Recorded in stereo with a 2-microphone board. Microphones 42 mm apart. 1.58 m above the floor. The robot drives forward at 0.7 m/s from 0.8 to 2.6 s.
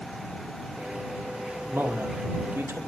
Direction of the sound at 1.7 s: 55° right (ahead or behind).